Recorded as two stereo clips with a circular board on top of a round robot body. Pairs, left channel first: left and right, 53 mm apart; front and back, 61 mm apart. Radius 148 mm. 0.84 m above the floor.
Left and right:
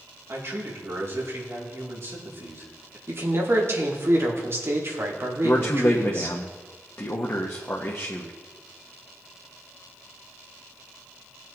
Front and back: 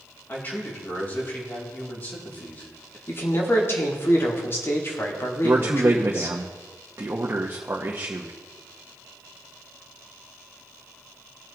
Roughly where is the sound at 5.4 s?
Behind left.